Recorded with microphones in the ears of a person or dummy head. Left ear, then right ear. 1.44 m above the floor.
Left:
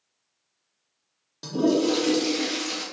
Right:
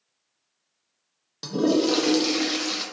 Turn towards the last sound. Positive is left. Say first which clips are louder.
# even
turn(degrees=-20)  # may be behind; listen again after turning